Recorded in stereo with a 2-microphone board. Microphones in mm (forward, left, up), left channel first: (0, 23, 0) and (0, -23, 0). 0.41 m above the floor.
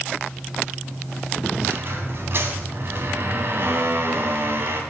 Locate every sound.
1.6 s a squeak: 55° right (ahead or behind), 2.5 m